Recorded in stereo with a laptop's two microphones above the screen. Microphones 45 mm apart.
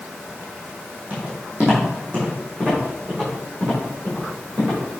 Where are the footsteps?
35° right (ahead or behind), 2.5 m; by 4.8 s 30° right (ahead or behind), 4.5 m.